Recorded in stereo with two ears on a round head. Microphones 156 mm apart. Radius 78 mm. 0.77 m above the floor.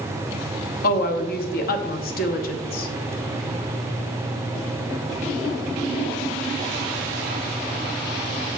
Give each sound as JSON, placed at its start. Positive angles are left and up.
{"t": 0.8, "sound": "a woman speaking", "side_deg": 55, "distance_m": 0.9}